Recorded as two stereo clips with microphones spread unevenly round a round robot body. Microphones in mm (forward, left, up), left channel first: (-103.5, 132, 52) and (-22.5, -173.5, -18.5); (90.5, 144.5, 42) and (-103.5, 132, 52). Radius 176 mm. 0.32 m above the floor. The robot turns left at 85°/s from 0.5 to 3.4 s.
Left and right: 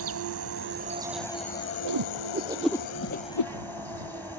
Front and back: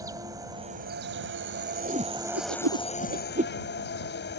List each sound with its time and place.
0.0 s an insect: 100° right; by 4.4 s 15° left
1.9 s a whoosh: 100° right; by 3.5 s 130° left